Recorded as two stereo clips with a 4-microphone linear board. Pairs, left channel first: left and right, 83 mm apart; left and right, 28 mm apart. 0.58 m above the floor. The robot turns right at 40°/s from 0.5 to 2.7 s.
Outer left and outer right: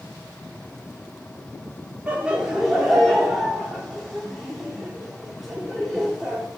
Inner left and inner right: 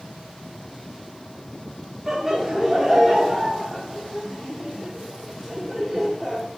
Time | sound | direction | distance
2.1 | laughter | 20° right (ahead or behind) | 0.9 m